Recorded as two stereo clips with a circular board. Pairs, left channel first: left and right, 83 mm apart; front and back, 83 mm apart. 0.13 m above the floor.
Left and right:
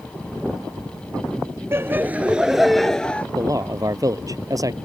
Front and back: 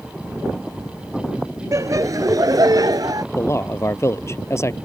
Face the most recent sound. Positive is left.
turn(degrees=-50)